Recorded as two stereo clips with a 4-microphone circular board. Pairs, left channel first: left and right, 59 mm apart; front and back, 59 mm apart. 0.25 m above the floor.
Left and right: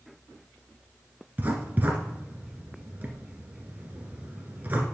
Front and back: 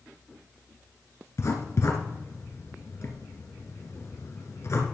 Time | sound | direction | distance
1.4 | writing | 35° right | 1.4 m